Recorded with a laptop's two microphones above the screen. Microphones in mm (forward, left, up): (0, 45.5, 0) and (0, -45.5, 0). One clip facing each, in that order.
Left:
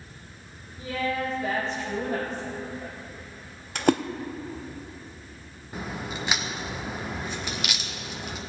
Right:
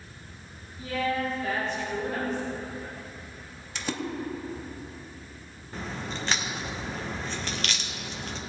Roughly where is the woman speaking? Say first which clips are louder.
Even; left.